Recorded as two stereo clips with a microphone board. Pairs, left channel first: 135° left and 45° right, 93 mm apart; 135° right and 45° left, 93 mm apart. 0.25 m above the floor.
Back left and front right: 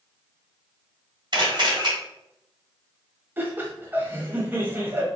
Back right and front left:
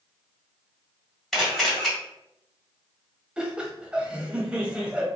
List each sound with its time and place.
1.3 s a camera shutter: 50° right, 2 m
3.4 s laughter: 20° right, 1.0 m